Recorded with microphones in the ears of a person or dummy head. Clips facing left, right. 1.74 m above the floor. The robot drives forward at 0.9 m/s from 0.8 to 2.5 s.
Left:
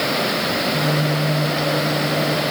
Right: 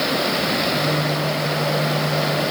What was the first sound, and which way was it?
Only background noise.